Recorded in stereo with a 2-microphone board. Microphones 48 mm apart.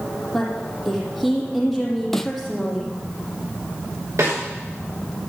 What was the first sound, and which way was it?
A woman speaking, centre (ahead or behind).